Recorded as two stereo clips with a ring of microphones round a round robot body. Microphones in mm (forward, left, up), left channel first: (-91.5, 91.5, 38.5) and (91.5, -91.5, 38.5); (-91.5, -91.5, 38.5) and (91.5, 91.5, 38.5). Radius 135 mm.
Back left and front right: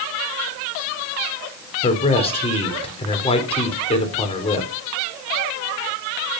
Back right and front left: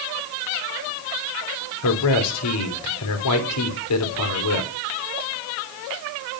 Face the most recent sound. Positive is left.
turn(degrees=-155)